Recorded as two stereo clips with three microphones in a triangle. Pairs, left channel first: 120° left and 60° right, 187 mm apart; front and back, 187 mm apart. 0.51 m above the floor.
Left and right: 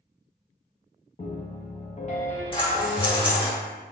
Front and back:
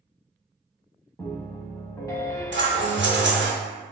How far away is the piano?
About 0.6 m.